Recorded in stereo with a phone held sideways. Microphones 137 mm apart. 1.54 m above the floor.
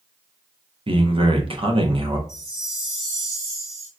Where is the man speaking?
40° right (ahead or behind), 0.6 m.